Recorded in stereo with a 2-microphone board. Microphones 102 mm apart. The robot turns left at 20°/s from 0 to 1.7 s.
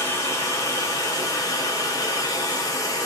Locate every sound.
0.0 s running water: 130° left, 0.9 m; by 3.1 s 100° left, 0.9 m